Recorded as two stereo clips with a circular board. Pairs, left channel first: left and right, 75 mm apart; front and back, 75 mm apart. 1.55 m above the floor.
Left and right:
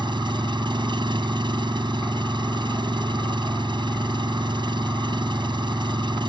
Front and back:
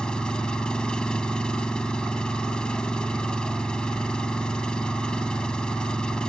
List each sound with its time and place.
0.0 s an engine running: 80° right